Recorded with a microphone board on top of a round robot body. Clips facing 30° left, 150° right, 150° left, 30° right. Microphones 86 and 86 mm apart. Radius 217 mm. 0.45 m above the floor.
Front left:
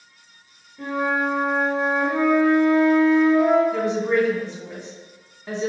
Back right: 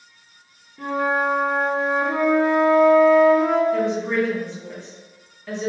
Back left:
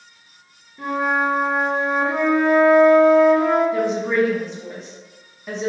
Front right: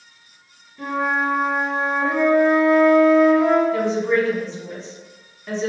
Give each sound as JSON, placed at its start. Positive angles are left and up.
{"t": 0.8, "sound": "a flute", "azimuth_deg": -135, "distance_m": 1.7}
{"t": 3.7, "sound": "a woman speaking", "azimuth_deg": 75, "distance_m": 1.4}